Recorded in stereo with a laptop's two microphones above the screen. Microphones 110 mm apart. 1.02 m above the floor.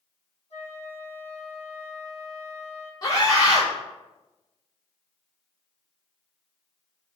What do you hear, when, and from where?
0.5 s a flute: 70° left (ahead or behind), 2.5 m
3.0 s a scream: 35° left (ahead or behind), 3.5 m